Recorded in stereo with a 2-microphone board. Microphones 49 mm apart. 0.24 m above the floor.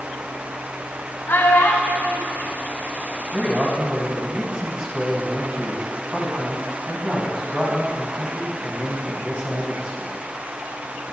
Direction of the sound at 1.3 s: 55° left (ahead or behind).